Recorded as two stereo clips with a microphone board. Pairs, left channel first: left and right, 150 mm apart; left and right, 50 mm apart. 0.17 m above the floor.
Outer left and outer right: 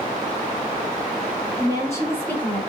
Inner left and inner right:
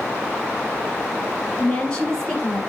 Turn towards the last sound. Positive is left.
turn(degrees=5)  # may be behind; listen again after turning